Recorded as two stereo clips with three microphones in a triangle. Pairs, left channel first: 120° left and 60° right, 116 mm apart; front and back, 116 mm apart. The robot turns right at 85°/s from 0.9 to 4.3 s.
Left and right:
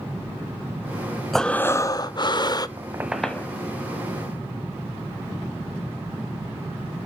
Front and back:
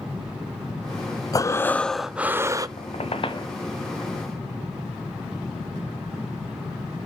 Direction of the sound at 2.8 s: 5° right.